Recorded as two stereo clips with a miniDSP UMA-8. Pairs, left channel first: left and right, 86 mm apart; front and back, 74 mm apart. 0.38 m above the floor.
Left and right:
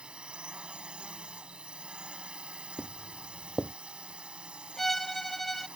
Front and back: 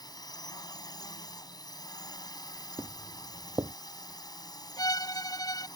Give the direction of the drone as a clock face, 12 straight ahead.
12 o'clock.